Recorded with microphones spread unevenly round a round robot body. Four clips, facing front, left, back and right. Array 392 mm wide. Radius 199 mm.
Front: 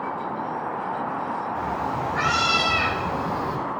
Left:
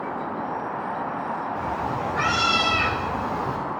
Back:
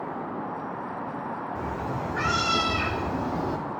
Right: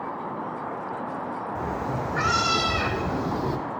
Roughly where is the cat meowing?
Right.